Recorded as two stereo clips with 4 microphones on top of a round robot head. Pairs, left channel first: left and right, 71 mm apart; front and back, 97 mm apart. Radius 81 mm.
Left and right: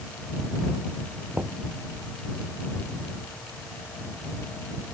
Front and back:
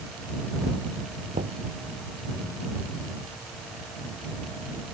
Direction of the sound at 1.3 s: 145° right.